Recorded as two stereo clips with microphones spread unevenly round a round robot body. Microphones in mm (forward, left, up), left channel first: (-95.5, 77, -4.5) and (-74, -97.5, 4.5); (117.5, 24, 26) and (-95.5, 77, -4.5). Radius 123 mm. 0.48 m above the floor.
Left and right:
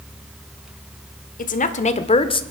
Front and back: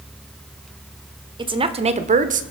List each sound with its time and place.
1.4 s a woman speaking: 110° left, 1.5 m; by 2.4 s 145° left, 1.4 m